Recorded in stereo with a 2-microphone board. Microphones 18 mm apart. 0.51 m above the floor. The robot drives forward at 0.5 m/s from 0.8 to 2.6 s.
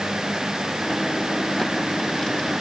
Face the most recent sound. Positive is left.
No sound to turn to.